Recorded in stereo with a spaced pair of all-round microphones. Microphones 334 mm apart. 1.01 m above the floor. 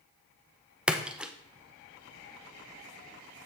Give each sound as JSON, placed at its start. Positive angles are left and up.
{"t": 0.9, "sound": "a splash", "side_deg": -5, "distance_m": 0.7}